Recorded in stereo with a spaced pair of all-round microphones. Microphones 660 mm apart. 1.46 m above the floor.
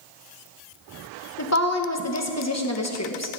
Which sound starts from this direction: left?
A woman speaking, at 1.4 s.